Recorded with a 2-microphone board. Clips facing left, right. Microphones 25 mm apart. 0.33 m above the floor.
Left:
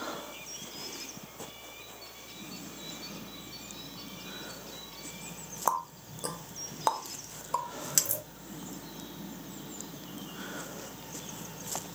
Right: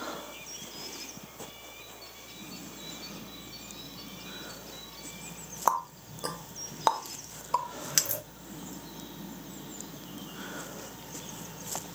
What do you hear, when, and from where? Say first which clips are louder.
5.7 s a running tap: right 3 dB; 30° right (ahead or behind), 0.6 m